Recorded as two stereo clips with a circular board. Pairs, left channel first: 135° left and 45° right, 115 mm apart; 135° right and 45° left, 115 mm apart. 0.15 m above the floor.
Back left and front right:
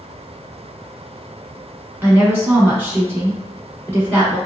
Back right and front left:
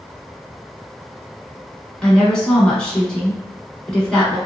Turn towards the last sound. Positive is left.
turn(degrees=-70)